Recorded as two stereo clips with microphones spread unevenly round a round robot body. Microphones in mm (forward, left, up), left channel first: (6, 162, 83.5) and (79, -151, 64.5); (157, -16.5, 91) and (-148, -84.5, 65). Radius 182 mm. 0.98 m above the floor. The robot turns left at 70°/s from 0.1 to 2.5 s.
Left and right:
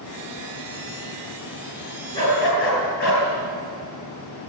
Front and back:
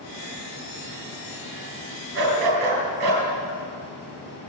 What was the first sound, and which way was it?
A dog barking, 175° right.